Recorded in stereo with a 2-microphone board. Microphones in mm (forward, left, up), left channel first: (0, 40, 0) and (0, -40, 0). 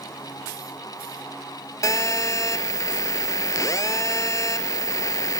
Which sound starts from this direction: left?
A phone buzzing, at 1.8 s.